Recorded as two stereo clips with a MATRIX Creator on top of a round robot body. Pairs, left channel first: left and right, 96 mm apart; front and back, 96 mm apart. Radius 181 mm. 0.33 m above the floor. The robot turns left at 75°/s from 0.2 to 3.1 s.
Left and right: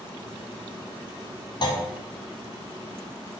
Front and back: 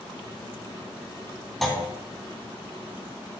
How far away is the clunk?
About 1.6 m.